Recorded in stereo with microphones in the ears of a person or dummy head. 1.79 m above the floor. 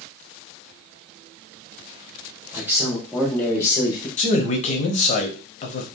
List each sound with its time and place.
2.5 s a man speaking: 10° right (ahead or behind), 1.8 m; by 4.1 s 25° left (ahead or behind), 1.8 m
4.2 s a man speaking: 35° left (ahead or behind), 1.0 m